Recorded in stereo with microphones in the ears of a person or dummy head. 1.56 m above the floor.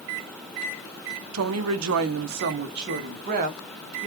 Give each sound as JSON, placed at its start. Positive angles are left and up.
{"t": 1.3, "sound": "a woman speaking", "side_deg": -80, "distance_m": 0.9}